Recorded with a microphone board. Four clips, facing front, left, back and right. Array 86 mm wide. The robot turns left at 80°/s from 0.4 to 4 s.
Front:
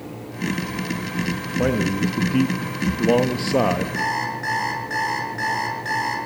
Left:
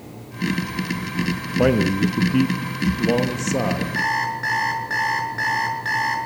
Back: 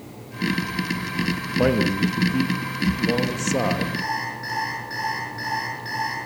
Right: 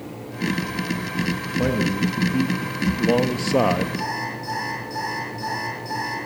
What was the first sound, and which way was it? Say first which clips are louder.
A man speaking: left 5 dB, back 1 dB; 110° left.